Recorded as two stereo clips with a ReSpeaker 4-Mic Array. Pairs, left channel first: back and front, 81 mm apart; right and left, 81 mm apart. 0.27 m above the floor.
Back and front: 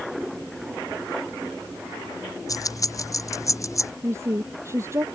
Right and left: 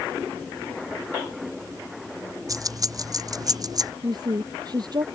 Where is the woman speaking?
55° left.